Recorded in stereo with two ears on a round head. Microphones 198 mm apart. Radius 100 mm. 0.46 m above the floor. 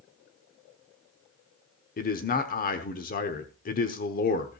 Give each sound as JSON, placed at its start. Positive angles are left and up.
{"t": 2.0, "sound": "a man speaking", "side_deg": 40, "distance_m": 0.9}